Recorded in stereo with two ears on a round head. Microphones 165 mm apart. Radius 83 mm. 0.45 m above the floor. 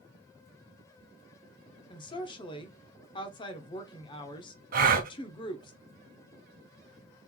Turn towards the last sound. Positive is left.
turn(degrees=-50)  # may be behind; listen again after turning